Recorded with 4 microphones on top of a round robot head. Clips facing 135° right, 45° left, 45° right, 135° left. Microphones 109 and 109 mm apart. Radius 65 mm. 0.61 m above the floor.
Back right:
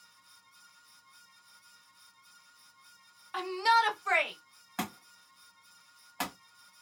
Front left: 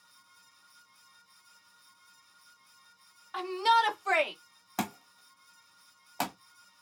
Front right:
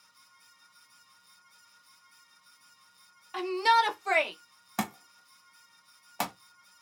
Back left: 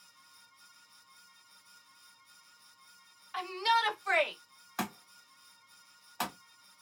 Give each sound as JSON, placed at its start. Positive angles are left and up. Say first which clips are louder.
{"t": 3.3, "sound": "a shout", "louder": "front left 1 dB, front right 6 dB", "azimuth_deg": -50, "distance_m": 0.8}
{"t": 4.8, "sound": "a thud", "louder": "front left 3 dB, front right 4 dB", "azimuth_deg": -5, "distance_m": 1.2}